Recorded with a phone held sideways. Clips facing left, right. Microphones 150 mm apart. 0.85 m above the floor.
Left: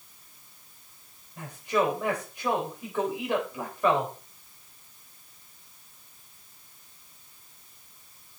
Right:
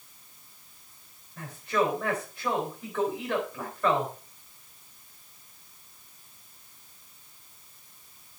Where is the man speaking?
15° left (ahead or behind), 4 m.